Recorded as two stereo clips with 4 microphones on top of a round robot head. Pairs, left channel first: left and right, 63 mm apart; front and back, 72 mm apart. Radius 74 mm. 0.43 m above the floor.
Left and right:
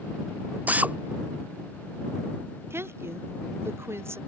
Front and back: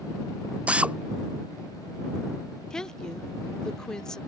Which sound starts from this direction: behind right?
A drill, at 0.7 s.